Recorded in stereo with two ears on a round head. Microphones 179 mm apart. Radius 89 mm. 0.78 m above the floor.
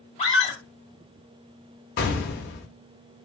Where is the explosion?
50° left (ahead or behind), 0.8 m.